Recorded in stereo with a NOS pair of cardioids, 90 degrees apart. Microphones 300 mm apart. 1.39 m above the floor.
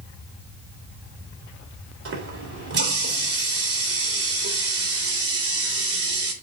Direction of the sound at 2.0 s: 50° right.